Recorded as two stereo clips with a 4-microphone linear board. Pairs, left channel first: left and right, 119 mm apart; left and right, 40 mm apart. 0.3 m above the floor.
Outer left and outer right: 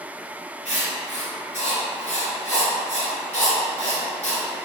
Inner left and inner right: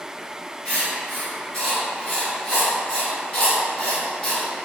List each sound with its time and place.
0.7 s writing: 10° left (ahead or behind), 1.8 m